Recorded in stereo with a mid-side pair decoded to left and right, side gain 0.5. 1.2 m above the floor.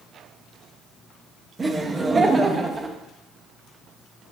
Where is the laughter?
25° right, 1.1 m.